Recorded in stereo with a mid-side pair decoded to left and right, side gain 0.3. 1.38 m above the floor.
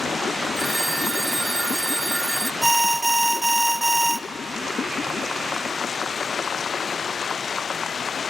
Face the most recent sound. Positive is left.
turn(degrees=-20)